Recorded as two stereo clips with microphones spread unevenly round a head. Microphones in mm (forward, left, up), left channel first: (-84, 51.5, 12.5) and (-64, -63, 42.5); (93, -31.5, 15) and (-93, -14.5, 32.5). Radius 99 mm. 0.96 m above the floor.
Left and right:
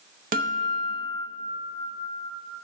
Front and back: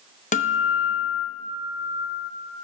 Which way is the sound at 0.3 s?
55° right.